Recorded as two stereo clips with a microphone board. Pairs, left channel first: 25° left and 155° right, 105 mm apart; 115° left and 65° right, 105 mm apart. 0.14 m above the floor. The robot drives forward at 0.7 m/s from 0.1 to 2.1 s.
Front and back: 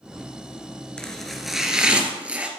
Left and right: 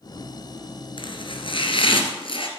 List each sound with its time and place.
1.0 s chopping: 105° left, 2 m; by 2.5 s 125° left, 2.5 m